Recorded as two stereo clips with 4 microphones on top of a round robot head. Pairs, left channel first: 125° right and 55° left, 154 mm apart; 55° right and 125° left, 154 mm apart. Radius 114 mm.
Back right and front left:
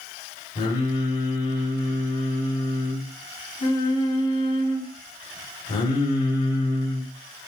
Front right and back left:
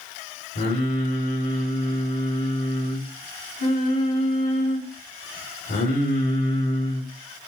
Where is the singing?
70° right, 4 m.